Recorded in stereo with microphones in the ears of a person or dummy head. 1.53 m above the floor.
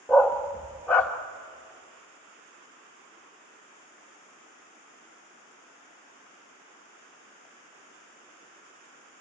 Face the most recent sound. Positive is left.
turn(degrees=10)  # may be behind; listen again after turning